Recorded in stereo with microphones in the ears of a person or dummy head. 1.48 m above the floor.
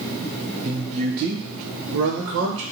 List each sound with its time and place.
0.6 s a man speaking: 20° right (ahead or behind), 0.9 m; by 2.6 s 80° right, 1.4 m